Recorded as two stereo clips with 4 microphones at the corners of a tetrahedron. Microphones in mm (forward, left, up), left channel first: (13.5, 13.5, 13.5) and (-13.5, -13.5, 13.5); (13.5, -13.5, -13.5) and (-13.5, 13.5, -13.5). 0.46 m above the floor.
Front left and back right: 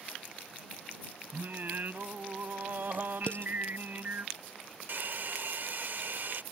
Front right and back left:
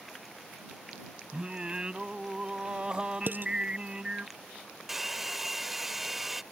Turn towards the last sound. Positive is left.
turn(degrees=-145)